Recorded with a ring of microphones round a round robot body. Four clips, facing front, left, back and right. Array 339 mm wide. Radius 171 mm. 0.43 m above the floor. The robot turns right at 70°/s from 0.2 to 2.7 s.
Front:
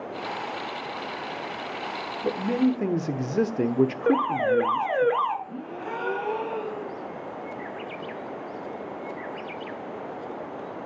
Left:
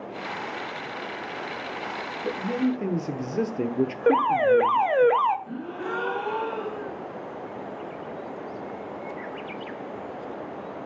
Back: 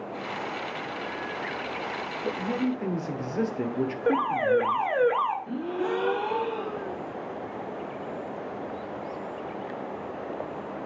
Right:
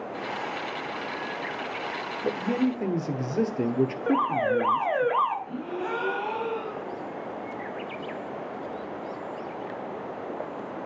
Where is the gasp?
160° left, 3 m.